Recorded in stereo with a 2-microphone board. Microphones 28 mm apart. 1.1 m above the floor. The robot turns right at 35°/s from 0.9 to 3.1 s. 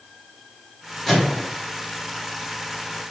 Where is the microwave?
5° left (ahead or behind), 1.6 m; by 1.5 s 15° left (ahead or behind), 1.6 m.